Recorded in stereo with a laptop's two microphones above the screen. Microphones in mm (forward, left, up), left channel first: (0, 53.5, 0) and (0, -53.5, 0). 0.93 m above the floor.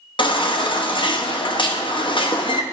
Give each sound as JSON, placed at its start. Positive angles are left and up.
{"t": 0.2, "sound": "a baby crying", "side_deg": 50, "distance_m": 0.7}